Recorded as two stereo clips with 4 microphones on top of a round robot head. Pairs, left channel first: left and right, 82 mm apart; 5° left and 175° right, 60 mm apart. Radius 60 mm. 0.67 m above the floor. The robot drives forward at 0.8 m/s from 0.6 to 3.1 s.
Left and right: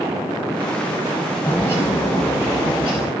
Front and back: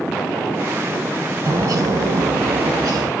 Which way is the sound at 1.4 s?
160° left.